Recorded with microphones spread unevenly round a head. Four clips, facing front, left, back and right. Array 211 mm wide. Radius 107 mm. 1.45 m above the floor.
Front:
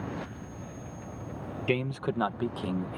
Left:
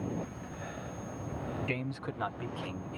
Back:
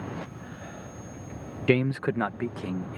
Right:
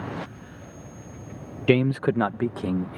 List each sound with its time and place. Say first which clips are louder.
1.7 s a man speaking: right 16 dB, back 6 dB; 110° right; by 3.0 s 85° right